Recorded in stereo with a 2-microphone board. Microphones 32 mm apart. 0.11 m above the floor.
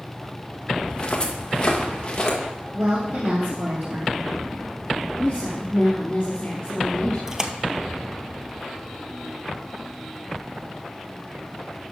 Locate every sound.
0.9 s footsteps: 30° left (ahead or behind), 1.7 m; by 2.4 s 25° left (ahead or behind), 3 m
2.7 s a woman speaking: 60° right (ahead or behind), 4 m
5.2 s a woman speaking: 35° left (ahead or behind), 2.5 m
7.3 s a splash: 20° right (ahead or behind), 0.8 m